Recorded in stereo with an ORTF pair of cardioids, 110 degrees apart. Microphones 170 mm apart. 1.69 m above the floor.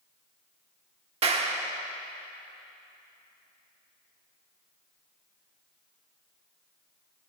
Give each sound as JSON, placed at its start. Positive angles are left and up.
{"t": 1.2, "sound": "a clap", "azimuth_deg": -35, "distance_m": 1.3}